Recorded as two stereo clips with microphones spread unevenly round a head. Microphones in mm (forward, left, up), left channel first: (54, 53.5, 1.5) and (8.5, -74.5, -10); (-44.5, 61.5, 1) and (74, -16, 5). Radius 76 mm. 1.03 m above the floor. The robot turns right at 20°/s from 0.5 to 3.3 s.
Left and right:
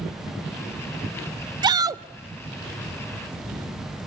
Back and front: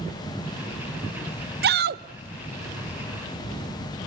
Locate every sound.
1.6 s a shout: 50° right, 0.6 m; by 2.0 s 45° right, 0.6 m